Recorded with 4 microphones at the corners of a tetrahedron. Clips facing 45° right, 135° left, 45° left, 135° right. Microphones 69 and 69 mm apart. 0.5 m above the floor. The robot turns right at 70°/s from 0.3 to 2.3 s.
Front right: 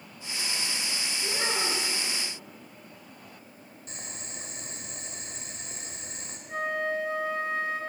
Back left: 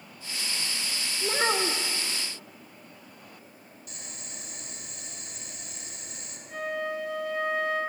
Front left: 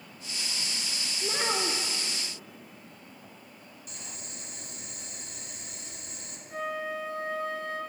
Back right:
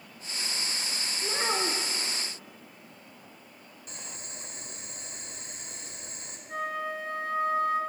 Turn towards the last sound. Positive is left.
turn(degrees=-100)